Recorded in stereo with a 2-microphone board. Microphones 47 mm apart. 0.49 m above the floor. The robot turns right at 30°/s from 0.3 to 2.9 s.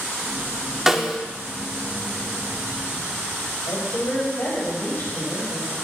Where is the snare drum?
10° right (ahead or behind), 0.5 m; by 1.2 s 5° right (ahead or behind), 0.5 m.